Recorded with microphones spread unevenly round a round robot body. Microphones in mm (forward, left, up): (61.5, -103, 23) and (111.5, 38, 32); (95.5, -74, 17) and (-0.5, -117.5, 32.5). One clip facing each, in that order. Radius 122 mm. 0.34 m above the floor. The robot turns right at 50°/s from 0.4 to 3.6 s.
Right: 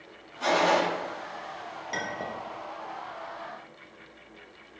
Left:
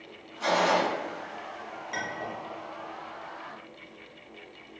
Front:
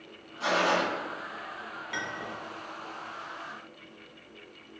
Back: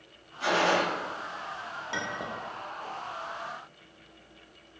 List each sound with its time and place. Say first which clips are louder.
0.4 s a gunshot: right 1 dB, back 1 dB; 15° right, 1.2 m; by 0.8 s 5° left, 1.2 m
1.9 s a clink: right 1 dB, back 2 dB; 100° right, 0.6 m; by 2.4 s 75° right, 0.6 m